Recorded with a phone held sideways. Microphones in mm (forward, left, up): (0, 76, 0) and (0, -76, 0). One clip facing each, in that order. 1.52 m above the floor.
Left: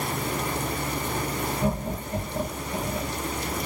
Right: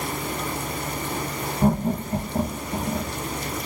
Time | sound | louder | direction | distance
1.6 | laughter | right 6 dB | 55° right (ahead or behind) | 1.5 m